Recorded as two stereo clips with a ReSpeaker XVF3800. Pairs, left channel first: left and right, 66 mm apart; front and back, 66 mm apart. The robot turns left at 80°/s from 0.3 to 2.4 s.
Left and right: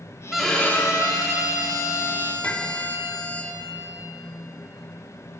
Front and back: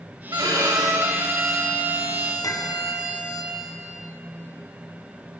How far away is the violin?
About 1.8 m.